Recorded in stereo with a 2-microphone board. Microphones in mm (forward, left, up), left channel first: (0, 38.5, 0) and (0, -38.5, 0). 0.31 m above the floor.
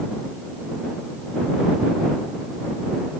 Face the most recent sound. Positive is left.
No sound to turn to.